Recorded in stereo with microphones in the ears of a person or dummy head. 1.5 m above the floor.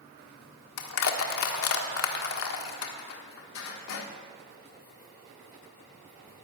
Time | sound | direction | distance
0.8 | crushing | 75° left (ahead or behind) | 1.4 m